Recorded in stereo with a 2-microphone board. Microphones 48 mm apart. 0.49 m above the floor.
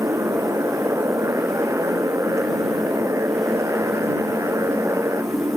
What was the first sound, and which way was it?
A motorcycle, 85° right.